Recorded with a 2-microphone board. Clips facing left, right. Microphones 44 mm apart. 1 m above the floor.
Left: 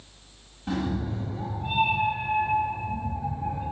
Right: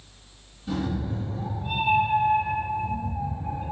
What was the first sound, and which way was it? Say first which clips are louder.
A cat meowing: even; 55° left (ahead or behind).